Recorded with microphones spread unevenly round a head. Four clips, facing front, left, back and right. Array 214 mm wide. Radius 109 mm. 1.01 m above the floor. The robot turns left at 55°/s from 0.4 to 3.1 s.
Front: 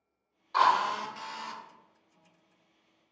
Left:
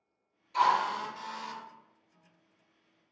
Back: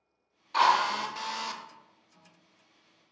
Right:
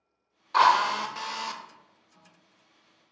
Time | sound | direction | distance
0.5 | a drill | 70° right | 0.6 m